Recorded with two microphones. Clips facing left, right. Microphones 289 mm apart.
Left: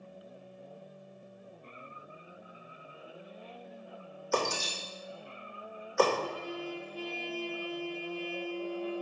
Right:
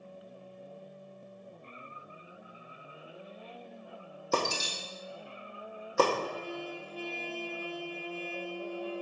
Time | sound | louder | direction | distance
4.3 | breaking glass | even | 50° right (ahead or behind) | 2.5 m
6.2 | a trumpet | even | 15° right (ahead or behind) | 1.7 m